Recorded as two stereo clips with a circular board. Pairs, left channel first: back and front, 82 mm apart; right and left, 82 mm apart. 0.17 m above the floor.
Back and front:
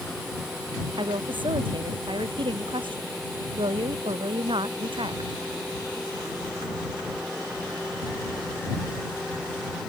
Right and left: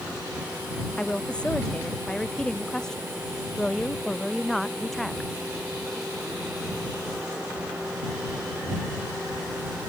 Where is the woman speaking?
10° right; by 5.4 s straight ahead.